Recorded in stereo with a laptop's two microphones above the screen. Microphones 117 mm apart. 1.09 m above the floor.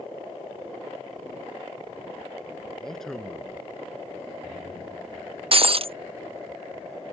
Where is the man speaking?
5° left (ahead or behind).